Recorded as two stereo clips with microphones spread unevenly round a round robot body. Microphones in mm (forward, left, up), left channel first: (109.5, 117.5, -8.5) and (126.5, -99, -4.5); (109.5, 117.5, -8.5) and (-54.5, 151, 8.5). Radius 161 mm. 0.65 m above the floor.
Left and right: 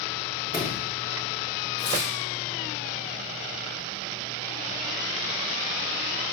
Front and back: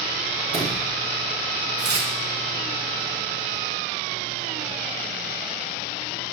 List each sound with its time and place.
0.5 s a sliding door: 150° right, 4 m
1.8 s tearing paper: 170° left, 1.7 m